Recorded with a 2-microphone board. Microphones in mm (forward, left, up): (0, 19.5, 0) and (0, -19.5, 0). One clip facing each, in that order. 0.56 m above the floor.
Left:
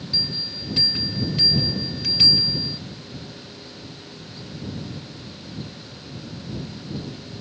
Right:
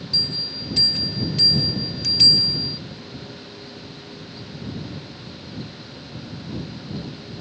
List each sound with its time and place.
0.1 s a bell: 15° left (ahead or behind)